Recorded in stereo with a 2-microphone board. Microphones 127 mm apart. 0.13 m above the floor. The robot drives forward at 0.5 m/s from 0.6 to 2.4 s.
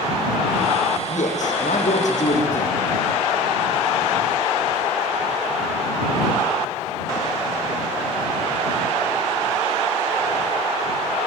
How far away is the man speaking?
About 7 m.